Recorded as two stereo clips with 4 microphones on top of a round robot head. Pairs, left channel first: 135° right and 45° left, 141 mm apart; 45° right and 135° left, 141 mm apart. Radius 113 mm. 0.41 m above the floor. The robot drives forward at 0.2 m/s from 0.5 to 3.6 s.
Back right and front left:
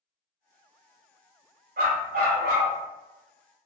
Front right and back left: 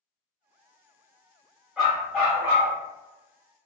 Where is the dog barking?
45° left, 1.3 m; by 2.7 s 50° left, 1.1 m.